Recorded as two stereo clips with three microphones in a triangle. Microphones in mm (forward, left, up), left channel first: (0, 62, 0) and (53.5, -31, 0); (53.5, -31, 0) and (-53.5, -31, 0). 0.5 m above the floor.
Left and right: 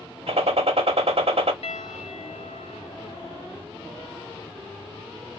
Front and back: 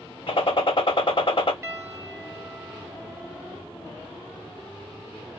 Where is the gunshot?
35° right, 0.7 m.